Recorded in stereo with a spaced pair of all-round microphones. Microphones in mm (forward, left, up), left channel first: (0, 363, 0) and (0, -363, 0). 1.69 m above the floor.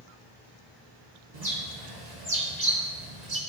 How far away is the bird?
About 1.7 m.